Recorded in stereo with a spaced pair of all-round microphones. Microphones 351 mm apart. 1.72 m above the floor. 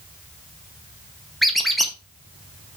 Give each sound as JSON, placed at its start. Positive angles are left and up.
{"t": 1.4, "sound": "a squeak", "side_deg": 0, "distance_m": 1.2}